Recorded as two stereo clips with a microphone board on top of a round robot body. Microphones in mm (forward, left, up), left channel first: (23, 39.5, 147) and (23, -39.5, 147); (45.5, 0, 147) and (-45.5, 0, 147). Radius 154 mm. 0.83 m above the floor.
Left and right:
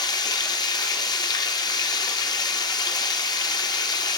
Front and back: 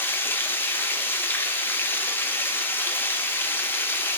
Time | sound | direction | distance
0.0 | running water | 65° left | 0.7 m